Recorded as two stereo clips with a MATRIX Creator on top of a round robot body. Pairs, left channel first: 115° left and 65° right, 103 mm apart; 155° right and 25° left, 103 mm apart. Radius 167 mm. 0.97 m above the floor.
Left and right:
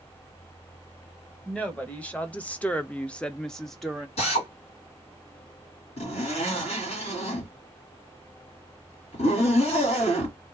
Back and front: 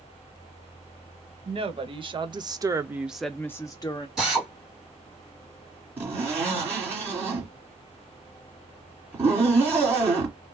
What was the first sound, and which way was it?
A woman speaking, 35° left.